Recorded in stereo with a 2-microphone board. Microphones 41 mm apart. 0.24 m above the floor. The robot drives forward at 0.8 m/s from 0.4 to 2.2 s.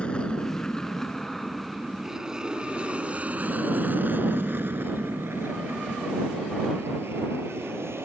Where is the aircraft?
30° left (ahead or behind); by 8.1 s 75° right (ahead or behind).